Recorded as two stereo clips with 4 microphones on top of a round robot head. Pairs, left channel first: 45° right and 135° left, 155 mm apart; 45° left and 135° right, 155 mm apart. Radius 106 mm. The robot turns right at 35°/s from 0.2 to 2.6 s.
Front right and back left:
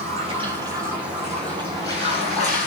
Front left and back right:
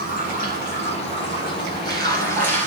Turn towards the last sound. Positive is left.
turn(degrees=-90)